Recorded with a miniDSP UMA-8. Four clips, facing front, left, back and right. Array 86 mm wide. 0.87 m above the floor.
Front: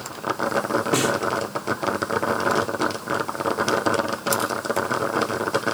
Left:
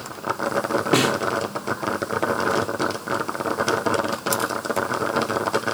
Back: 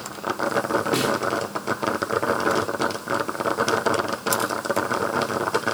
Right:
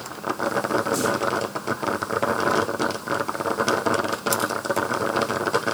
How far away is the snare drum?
About 1.3 m.